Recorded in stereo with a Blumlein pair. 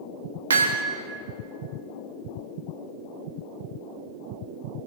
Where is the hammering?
70° right, 1.8 m.